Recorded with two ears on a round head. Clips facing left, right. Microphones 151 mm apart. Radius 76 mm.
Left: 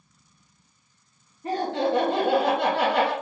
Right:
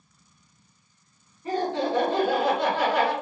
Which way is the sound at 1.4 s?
50° left (ahead or behind).